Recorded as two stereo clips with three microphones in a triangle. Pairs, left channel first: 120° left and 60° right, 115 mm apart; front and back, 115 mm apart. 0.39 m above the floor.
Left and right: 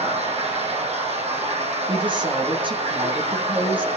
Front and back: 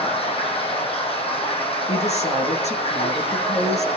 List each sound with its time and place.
0.0 s running water: 35° right, 9.5 m
1.9 s a woman speaking: 15° right, 7 m